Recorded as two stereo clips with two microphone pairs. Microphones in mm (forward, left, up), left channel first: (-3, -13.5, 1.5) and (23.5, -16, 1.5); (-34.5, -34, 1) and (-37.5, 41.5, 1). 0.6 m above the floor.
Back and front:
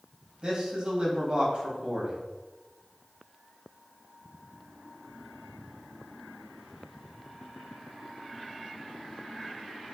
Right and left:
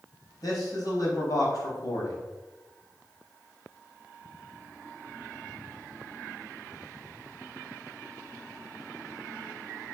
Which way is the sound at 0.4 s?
60° right.